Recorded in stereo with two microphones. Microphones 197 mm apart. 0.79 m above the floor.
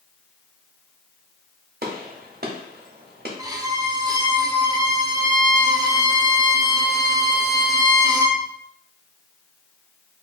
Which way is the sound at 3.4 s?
20° right (ahead or behind).